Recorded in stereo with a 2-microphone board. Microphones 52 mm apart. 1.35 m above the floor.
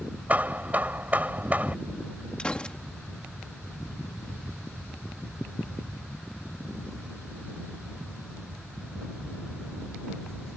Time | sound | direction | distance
0.3 | hammering | 35° right (ahead or behind) | ?
2.4 | a gunshot | 20° left (ahead or behind) | ?